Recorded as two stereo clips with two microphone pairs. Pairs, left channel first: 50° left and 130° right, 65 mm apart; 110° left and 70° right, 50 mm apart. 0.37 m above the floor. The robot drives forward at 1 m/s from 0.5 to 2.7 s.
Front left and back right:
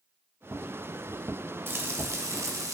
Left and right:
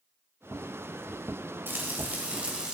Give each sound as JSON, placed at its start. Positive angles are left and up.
{"t": 1.7, "sound": "frying", "azimuth_deg": -90, "distance_m": 1.4}